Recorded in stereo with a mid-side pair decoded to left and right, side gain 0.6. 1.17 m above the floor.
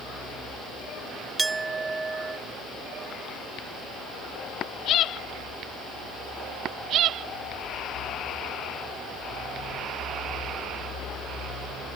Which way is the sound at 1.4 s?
20° right.